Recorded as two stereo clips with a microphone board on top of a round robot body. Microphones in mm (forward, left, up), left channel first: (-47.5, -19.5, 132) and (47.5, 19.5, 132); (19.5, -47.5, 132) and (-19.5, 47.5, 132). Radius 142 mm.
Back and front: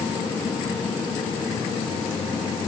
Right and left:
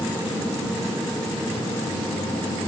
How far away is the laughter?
No laughter in this recording.